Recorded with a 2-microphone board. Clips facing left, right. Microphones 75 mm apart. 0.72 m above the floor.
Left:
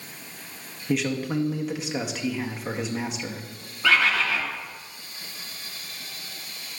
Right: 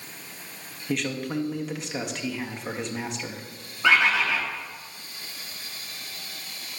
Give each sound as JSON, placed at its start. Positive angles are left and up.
{"t": 0.9, "sound": "a man speaking", "side_deg": 5, "distance_m": 0.5}
{"t": 3.8, "sound": "a bird", "side_deg": -20, "distance_m": 1.0}